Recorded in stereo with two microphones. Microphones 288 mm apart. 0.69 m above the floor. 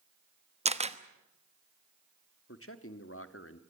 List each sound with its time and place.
0.7 s a camera shutter: 20° right (ahead or behind), 1.0 m
2.5 s a man speaking: 45° left (ahead or behind), 1.4 m